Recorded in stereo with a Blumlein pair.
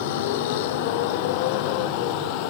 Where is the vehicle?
50° left; by 2.5 s 45° left.